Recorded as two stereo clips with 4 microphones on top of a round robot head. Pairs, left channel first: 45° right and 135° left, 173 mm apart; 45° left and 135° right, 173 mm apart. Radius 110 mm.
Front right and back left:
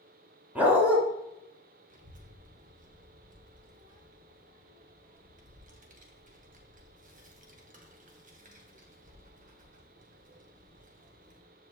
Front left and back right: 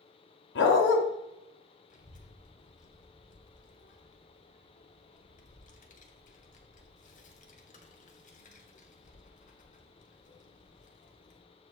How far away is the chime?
I don't hear a chime.